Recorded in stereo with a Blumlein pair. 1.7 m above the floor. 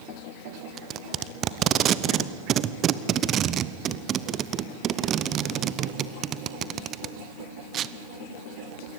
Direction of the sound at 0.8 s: 30° right.